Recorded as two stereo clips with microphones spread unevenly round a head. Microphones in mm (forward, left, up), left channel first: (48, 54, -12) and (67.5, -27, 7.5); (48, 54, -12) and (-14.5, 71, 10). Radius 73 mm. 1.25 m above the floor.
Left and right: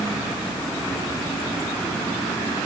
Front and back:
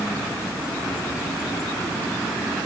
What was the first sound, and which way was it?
Only background noise.